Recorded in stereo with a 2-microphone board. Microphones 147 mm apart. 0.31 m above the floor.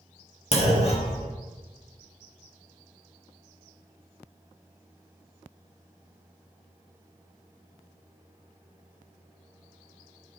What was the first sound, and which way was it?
A clunk, 45° left (ahead or behind).